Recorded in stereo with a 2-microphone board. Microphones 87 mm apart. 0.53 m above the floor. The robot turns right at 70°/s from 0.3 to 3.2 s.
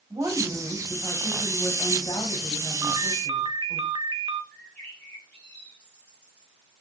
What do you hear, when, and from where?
0.1 s a woman speaking: 50° right, 4.5 m; by 3.8 s 150° left, 4.5 m
2.8 s a ringtone: 35° right (ahead or behind), 0.9 m; by 4.4 s 60° right (ahead or behind), 0.9 m
4.5 s a bird: 15° left (ahead or behind), 5 m